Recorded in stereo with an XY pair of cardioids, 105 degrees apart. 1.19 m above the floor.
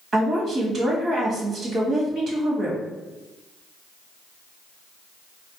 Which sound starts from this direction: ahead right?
A woman speaking, at 0.1 s.